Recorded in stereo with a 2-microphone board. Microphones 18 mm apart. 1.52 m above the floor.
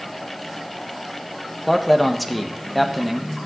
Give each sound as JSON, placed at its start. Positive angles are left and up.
{"t": 1.7, "sound": "a man speaking", "side_deg": 5, "distance_m": 1.5}